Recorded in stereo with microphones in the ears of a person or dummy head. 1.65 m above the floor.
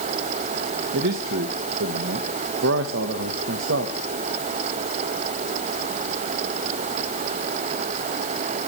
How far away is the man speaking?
About 1.4 m.